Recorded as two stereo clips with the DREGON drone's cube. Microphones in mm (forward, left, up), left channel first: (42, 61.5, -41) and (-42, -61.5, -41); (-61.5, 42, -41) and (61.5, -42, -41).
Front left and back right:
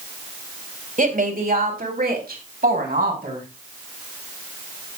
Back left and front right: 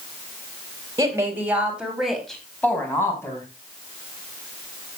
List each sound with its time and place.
1.0 s a woman speaking: 105° right, 3 m; by 3.5 s 145° right, 4.5 m